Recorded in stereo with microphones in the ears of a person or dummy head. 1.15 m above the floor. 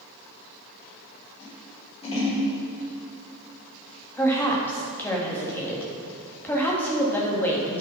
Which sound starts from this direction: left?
Scissors, at 1.4 s.